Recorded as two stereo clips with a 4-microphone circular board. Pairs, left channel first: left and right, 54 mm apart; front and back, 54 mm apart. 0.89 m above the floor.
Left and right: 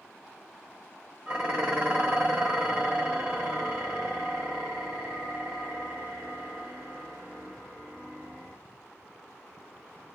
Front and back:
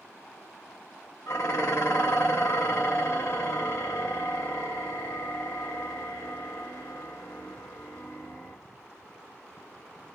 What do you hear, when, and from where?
1.3 s dishes clattering: 30° right, 1.3 m